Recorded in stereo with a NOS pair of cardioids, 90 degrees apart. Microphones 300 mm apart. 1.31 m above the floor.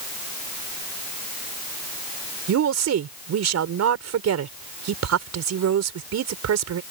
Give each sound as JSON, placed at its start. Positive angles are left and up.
{"t": 2.5, "sound": "a woman speaking", "azimuth_deg": -60}